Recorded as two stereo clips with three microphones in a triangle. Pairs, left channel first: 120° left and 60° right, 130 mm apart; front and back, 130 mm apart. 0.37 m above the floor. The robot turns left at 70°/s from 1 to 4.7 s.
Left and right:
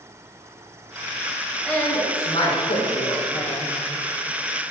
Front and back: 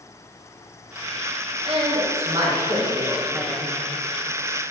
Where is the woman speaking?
155° right, 1.8 m; by 3.8 s 55° left, 1.8 m.